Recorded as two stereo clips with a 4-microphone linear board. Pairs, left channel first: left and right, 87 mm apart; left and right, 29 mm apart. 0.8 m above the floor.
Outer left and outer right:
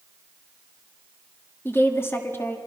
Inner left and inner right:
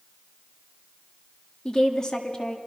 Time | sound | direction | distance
1.6 | a woman speaking | 30° left (ahead or behind) | 1.6 m